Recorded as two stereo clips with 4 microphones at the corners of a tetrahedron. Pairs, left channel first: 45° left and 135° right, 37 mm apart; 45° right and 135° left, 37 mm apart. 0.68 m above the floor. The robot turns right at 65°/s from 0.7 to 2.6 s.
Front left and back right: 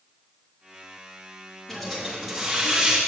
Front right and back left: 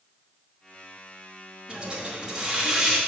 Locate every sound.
1.7 s a hiss: 125° left, 1.2 m; by 3.0 s 175° right, 1.2 m